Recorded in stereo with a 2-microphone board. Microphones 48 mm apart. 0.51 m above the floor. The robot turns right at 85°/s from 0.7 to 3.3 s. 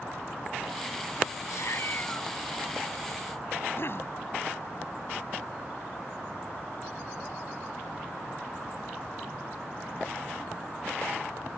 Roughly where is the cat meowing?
Left.